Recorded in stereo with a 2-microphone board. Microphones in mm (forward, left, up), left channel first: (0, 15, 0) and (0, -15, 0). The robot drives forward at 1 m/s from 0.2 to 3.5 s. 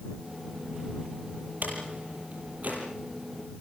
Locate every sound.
1.6 s a door slam: 65° right (ahead or behind), 8 m; by 2.8 s 60° right (ahead or behind), 8.5 m